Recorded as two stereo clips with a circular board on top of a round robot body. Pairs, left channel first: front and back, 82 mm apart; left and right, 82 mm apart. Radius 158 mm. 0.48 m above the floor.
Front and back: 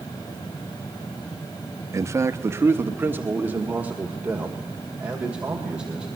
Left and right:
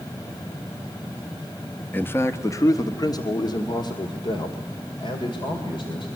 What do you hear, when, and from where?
1.9 s a man speaking: 150° left, 1.0 m; by 6.1 s 100° left, 3 m